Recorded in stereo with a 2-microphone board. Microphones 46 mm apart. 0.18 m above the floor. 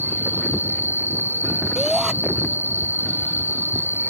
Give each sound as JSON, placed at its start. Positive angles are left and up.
{"t": 0.0, "sound": "an insect", "side_deg": -55}
{"t": 1.8, "sound": "a shout", "side_deg": -15}